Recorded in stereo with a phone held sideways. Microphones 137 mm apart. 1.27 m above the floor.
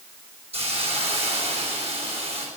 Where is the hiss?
55° right (ahead or behind), 5.5 m.